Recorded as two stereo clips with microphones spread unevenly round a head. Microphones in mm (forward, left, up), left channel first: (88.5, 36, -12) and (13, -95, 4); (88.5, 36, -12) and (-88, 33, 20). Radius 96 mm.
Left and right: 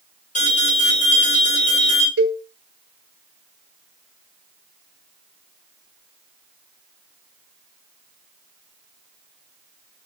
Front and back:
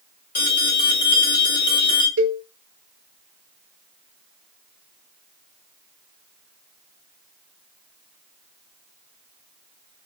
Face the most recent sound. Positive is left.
turn(degrees=-145)